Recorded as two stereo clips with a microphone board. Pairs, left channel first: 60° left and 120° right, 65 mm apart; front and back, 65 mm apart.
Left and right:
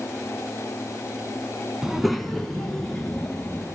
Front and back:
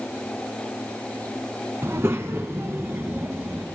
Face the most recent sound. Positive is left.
turn(degrees=135)